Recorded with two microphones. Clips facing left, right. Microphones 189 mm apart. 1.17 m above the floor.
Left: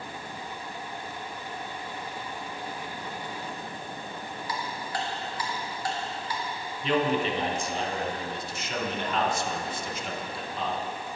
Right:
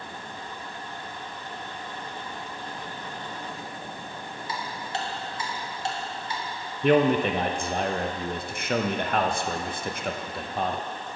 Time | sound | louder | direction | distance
4.5 | ticking | right 1 dB | 25° right (ahead or behind) | 1.1 m
6.8 | a man speaking | right 6 dB | 60° right (ahead or behind) | 0.7 m